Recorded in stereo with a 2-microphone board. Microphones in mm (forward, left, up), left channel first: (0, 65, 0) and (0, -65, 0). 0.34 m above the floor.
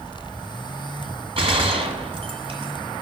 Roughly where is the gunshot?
Right.